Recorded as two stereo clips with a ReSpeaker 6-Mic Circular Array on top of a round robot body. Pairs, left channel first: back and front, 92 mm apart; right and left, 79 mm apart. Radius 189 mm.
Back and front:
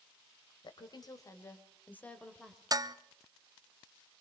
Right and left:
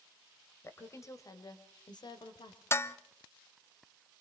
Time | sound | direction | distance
0.6 | a woman speaking | 145° right | 3 m
2.7 | dishes clattering | 40° right | 0.9 m